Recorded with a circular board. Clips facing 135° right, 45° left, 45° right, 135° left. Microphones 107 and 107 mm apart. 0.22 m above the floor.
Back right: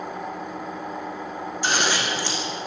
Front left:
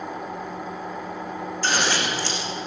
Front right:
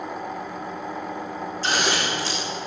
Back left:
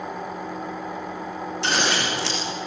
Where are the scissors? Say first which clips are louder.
Even, even; 150° left, 6 m.